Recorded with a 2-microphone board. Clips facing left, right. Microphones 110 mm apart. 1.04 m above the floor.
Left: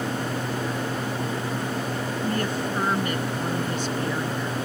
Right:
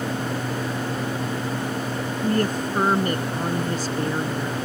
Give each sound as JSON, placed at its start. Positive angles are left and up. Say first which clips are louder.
{"t": 2.2, "sound": "a woman speaking", "louder": "right 5 dB", "side_deg": -45}